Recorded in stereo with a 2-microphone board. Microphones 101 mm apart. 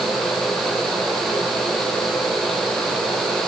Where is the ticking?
I don't hear ticking.